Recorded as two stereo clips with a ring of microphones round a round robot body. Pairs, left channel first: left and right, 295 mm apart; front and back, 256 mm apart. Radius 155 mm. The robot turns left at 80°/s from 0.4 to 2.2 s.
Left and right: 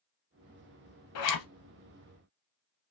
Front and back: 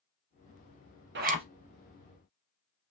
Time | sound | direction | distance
1.1 | a zipper | 130° left | 0.5 m